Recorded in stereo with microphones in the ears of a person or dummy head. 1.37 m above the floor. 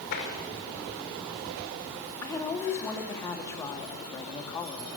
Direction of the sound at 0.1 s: 60° left (ahead or behind).